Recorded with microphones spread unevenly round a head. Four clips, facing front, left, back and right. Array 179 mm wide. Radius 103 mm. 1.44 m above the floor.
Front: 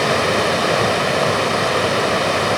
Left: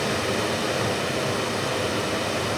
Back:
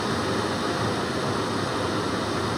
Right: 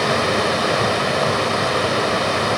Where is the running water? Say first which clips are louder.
Right 7 dB, front 9 dB; 30° right, 1.8 m.